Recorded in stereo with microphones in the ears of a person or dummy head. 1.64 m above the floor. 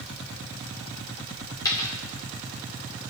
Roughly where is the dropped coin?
Left.